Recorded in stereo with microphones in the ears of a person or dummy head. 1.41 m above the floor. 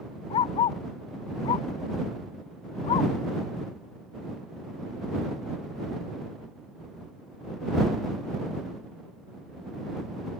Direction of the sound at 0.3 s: 35° left (ahead or behind).